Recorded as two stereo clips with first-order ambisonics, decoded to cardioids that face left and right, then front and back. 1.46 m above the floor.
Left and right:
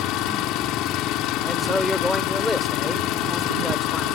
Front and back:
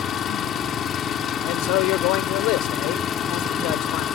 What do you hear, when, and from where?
0.0 s an engine running: 55° left
1.4 s a man speaking: 5° left